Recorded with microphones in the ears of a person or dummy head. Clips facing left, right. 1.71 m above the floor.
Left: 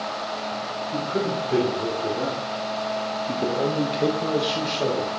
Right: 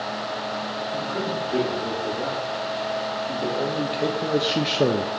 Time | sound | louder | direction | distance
0.9 | a man speaking | left 4 dB | 45° left (ahead or behind) | 2.5 m